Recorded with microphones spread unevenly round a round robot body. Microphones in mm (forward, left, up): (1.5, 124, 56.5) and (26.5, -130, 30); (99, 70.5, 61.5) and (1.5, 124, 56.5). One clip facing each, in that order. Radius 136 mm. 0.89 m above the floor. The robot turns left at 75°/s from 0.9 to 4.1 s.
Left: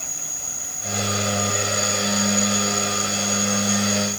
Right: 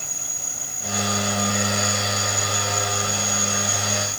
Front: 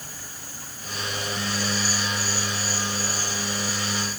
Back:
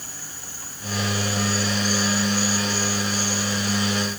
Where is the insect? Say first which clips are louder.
Even, even; 175° right; by 4.2 s 55° right.